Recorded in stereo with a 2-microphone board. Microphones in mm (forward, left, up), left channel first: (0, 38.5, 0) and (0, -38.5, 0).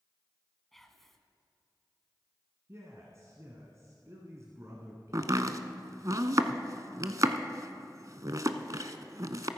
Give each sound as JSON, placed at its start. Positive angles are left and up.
{"t": 0.7, "sound": "whispering", "side_deg": 5, "distance_m": 1.3}
{"t": 2.7, "sound": "a man speaking", "side_deg": -40, "distance_m": 1.6}
{"t": 5.1, "sound": "chopping", "side_deg": -50, "distance_m": 0.7}